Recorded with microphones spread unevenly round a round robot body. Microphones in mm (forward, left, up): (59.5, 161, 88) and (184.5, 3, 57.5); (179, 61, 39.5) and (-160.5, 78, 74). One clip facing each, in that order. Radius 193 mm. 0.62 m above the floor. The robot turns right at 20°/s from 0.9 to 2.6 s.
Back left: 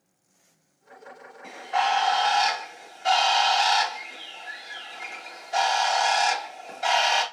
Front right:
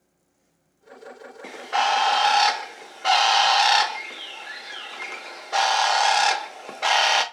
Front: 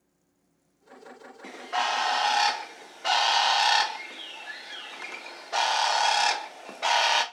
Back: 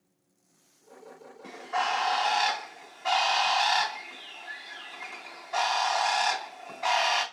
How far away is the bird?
About 0.9 m.